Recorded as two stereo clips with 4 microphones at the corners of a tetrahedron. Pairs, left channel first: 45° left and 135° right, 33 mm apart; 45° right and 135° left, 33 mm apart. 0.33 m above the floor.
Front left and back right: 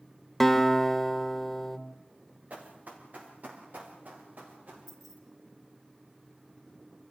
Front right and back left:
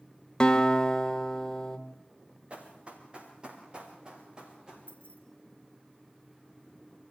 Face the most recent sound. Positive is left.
turn(degrees=140)